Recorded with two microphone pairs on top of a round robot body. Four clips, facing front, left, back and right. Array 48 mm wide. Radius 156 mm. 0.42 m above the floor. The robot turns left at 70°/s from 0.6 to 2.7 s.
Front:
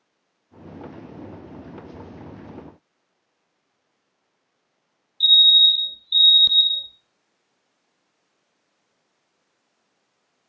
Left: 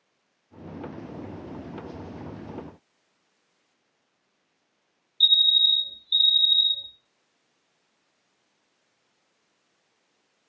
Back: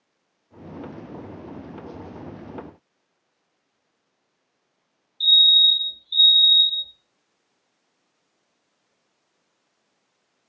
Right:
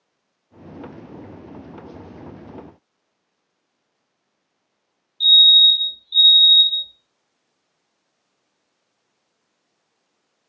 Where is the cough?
No cough in this recording.